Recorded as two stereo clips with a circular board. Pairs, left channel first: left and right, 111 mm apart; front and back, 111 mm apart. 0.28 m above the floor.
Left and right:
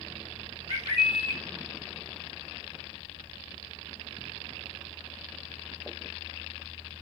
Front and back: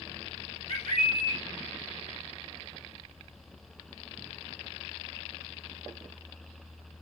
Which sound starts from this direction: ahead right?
A bird, at 0.7 s.